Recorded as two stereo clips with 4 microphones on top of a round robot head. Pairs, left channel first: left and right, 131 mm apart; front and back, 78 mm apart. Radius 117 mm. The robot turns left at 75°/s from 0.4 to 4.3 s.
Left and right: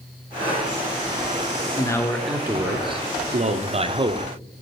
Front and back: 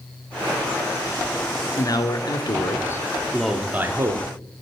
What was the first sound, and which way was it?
A man speaking, 35° left.